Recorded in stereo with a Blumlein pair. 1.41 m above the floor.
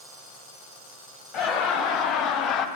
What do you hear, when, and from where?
1.3 s laughter: 30° left, 1.4 m